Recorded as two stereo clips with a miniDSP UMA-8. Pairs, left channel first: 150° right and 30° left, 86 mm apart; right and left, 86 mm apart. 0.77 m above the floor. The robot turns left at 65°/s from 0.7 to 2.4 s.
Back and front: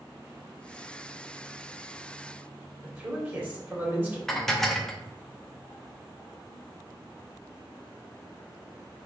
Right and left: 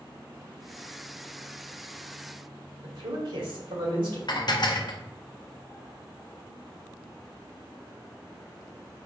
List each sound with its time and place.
2.8 s a man speaking: 95° left, 1.7 m
4.3 s dishes clattering: 65° right, 0.6 m